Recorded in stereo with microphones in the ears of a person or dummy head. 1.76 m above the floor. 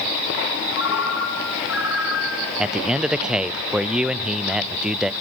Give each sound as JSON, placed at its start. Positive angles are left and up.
{"t": 0.8, "sound": "a ringtone", "side_deg": 65, "distance_m": 3.0}
{"t": 2.6, "sound": "a man speaking", "side_deg": -5, "distance_m": 0.8}